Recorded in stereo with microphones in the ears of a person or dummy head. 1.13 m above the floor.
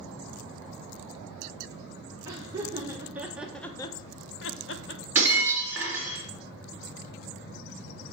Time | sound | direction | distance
2.2 | laughter | 25° right (ahead or behind) | 1.5 m
5.2 | breaking glass | 10° right (ahead or behind) | 3 m